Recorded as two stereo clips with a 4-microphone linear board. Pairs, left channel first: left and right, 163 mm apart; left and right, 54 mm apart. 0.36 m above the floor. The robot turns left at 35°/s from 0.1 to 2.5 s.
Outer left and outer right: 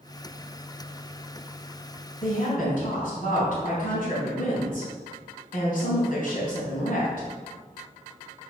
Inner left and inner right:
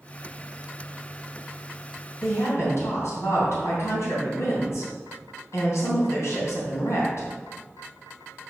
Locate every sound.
2.2 s a woman speaking: 60° left (ahead or behind), 3 m; by 7.3 s 65° left (ahead or behind), 3 m